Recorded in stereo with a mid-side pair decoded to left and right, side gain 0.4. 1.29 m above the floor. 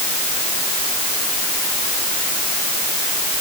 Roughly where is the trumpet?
I don't hear a trumpet.